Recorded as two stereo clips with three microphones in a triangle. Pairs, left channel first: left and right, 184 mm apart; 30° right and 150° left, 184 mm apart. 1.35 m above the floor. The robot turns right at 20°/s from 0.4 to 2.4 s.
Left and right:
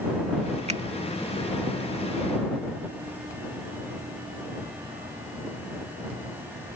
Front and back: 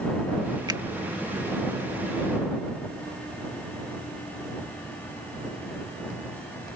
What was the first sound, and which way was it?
A finger snap, 145° right.